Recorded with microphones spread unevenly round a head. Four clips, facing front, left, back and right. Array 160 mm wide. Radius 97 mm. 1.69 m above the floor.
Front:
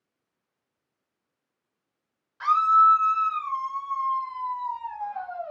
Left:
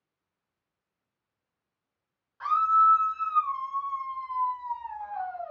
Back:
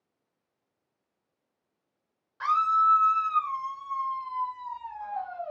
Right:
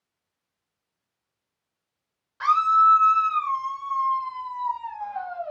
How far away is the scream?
About 1.2 m.